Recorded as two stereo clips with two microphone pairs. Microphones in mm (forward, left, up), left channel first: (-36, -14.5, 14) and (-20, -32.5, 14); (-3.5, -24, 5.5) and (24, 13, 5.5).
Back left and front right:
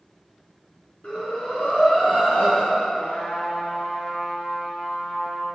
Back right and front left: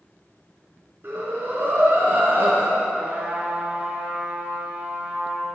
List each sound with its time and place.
1.0 s breathing: 90° left, 4 m
3.0 s a trumpet: 115° left, 2.5 m